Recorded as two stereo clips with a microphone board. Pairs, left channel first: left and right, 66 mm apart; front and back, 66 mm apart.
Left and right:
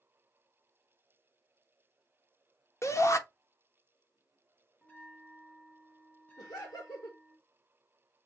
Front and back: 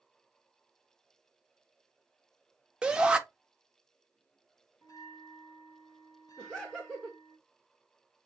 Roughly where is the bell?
Ahead.